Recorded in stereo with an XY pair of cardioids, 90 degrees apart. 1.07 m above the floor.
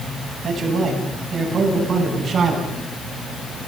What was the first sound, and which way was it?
A man speaking, 55° right.